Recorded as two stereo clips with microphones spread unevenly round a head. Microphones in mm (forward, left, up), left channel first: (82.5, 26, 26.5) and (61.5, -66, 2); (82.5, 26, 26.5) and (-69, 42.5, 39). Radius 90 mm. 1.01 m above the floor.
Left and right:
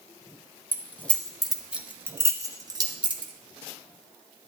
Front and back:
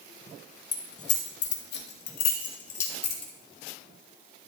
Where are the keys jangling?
5° left, 1.4 m; by 3.3 s 70° right, 1.5 m.